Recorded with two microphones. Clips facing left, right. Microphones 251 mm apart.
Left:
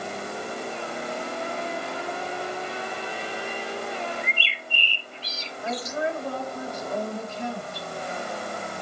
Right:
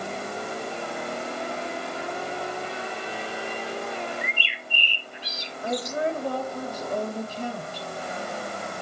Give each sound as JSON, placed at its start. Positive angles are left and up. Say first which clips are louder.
{"t": 4.2, "sound": "a bird", "louder": "even", "side_deg": -15, "distance_m": 0.6}
{"t": 5.6, "sound": "a woman speaking", "louder": "right 2 dB", "side_deg": -35, "distance_m": 2.5}